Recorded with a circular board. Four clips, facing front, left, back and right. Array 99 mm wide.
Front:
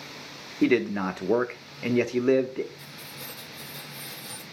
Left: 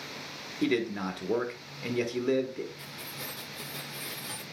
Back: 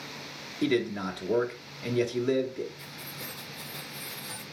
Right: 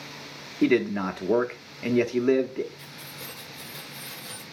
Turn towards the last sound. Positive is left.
turn(degrees=115)